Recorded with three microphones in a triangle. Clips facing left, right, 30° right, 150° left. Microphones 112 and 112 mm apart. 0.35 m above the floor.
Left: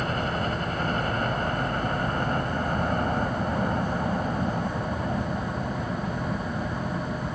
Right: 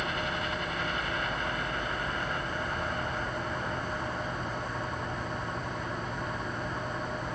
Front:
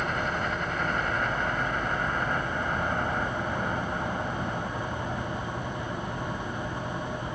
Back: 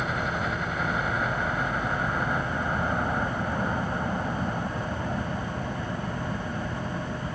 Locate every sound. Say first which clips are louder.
0.0 s a helicopter: left 5 dB, even; 65° left; by 7.4 s 80° left